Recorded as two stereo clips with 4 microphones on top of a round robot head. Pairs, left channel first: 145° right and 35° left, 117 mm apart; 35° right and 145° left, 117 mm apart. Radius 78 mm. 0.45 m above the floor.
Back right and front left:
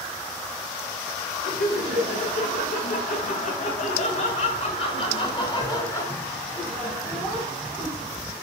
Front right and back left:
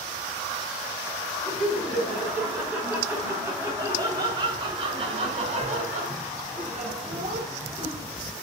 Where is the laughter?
130° right, 4.5 m; by 8.1 s 120° left, 3.5 m.